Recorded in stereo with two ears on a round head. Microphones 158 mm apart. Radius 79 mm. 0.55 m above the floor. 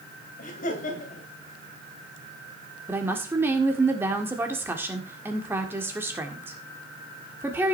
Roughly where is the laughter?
Left.